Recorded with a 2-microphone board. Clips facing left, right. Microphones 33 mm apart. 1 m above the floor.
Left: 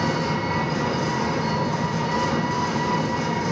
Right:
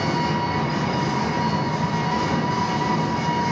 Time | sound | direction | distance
0.0 | an engine running | 50° right (ahead or behind) | 1.5 m